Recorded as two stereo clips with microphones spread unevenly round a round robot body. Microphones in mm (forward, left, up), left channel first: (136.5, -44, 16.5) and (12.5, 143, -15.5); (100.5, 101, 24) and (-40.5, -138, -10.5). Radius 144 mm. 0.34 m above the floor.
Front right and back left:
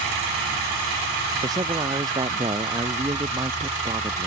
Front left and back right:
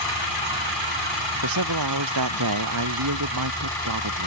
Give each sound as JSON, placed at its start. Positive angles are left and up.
{"t": 1.4, "sound": "a man speaking", "azimuth_deg": -160}